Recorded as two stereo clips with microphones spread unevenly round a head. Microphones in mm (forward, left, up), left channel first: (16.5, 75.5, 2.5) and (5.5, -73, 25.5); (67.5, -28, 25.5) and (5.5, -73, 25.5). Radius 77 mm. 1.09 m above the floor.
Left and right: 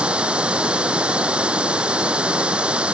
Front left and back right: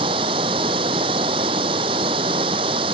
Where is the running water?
175° right.